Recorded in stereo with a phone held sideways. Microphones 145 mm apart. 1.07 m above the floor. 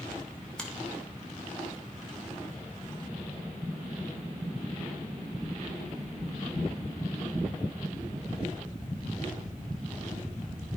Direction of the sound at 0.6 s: 5° left (ahead or behind).